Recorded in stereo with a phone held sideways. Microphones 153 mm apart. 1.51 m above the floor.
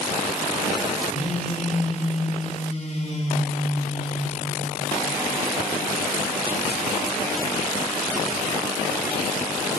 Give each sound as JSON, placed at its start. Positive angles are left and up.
{"t": 1.1, "sound": "a phone buzzing", "side_deg": 45, "distance_m": 3.5}